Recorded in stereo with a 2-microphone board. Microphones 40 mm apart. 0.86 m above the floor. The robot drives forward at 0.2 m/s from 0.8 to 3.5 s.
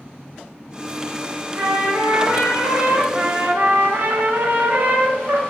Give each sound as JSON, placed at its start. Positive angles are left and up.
{"t": 1.6, "sound": "a trumpet", "side_deg": -55, "distance_m": 0.8}
{"t": 3.1, "sound": "a trumpet", "side_deg": -45, "distance_m": 0.5}